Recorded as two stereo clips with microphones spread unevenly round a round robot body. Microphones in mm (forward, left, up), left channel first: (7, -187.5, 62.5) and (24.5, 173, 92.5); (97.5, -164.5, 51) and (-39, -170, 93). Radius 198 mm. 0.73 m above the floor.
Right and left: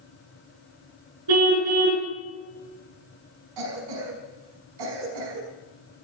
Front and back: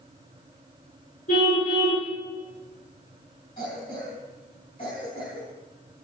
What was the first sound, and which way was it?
A car horn, 60° left.